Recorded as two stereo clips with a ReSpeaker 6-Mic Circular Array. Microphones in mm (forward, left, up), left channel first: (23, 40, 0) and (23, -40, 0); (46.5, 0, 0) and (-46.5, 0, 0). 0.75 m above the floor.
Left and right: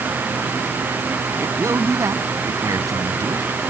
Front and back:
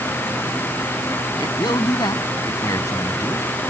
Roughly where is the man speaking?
Ahead right.